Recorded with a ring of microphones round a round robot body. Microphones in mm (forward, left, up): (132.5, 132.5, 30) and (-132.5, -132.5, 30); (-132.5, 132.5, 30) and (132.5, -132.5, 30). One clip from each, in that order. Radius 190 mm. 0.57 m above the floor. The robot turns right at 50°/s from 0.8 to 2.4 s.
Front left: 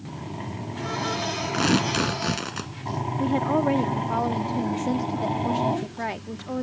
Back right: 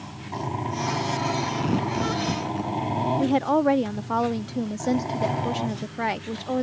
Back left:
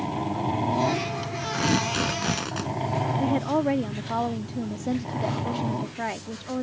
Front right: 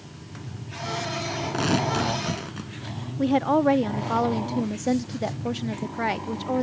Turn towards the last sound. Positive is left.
turn(degrees=-80)